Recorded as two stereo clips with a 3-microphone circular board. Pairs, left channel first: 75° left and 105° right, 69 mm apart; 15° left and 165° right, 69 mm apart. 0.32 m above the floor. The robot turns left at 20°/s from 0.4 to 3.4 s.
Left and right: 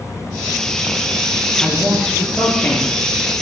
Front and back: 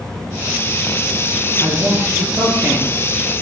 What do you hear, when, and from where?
1.6 s a man speaking: 165° left, 5 m; by 2.9 s 140° left, 5 m